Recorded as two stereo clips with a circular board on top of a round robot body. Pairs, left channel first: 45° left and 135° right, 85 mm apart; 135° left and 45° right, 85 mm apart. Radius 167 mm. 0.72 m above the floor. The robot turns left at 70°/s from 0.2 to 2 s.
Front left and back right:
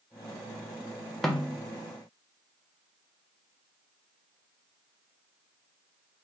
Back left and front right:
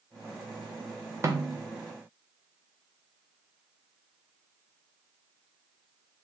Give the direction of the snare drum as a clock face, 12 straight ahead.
1 o'clock.